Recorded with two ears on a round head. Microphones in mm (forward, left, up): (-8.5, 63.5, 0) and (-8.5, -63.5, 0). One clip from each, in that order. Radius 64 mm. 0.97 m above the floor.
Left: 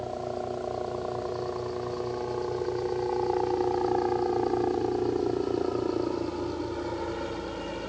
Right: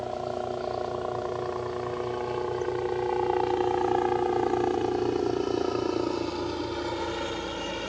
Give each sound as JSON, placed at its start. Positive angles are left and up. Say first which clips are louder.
{"t": 0.0, "sound": "a helicopter", "louder": "right 2 dB", "side_deg": -60}